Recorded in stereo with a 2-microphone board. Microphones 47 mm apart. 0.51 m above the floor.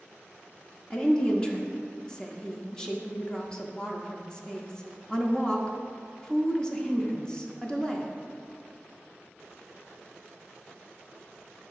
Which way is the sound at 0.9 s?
15° left (ahead or behind).